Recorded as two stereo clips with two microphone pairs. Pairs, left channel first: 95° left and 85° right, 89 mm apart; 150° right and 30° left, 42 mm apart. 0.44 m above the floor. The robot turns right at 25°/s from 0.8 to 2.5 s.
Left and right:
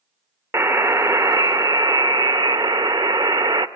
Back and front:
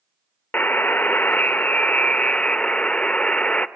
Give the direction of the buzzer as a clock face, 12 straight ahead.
5 o'clock.